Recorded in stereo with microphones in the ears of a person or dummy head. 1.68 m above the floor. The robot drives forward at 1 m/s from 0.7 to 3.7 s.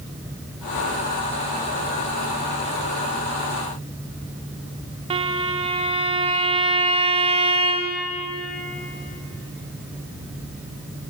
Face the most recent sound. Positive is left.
turn(degrees=-25)  # may be behind; listen again after turning